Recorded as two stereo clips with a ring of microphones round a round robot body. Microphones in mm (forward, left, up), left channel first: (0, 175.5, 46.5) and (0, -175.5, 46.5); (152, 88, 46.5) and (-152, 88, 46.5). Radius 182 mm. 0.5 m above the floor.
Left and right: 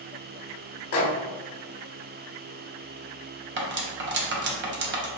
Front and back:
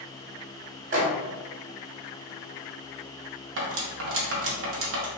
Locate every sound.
0.9 s a microwave: 135° left, 0.9 m
3.6 s cutlery clinking: 145° right, 0.6 m